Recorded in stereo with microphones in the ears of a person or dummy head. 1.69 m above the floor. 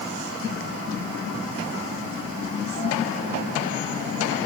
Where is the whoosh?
I don't hear a whoosh.